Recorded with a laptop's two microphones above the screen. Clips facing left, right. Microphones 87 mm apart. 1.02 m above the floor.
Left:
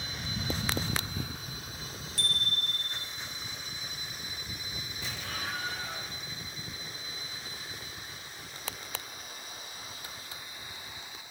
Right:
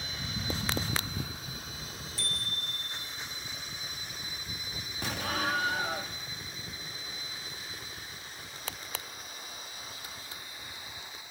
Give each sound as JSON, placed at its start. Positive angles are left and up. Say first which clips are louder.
{"t": 2.2, "sound": "a bicycle bell", "louder": "left 5 dB", "side_deg": 75, "distance_m": 3.5}
{"t": 5.0, "sound": "an explosion", "louder": "right 8 dB", "side_deg": -65, "distance_m": 1.7}